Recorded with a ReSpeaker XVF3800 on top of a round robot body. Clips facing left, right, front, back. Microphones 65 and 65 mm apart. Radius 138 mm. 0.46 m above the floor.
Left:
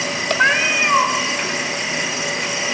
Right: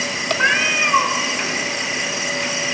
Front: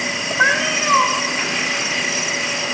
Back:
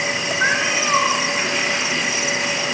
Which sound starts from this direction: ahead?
A cat meowing, at 0.4 s.